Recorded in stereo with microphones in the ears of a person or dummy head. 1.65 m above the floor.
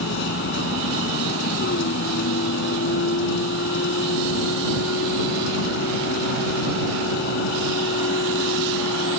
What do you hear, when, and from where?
0.0 s a vehicle: 70° left (ahead or behind)